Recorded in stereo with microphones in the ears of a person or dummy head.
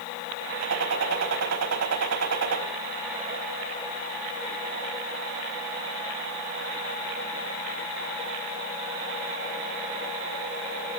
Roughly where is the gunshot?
Right.